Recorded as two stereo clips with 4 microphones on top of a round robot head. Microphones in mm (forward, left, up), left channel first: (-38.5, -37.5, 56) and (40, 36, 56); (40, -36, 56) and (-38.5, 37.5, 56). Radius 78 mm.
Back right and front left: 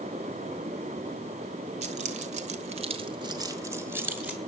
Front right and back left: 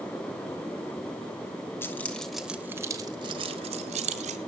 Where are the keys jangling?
30° left, 1.8 m; by 4.4 s 120° left, 2.5 m.